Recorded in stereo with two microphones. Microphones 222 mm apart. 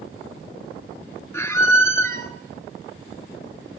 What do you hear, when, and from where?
1.3 s a squeak: 10° left (ahead or behind), 0.6 m